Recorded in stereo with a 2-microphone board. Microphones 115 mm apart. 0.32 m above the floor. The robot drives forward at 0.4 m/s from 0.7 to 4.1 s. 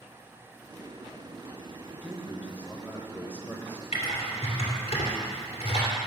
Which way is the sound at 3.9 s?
70° left (ahead or behind).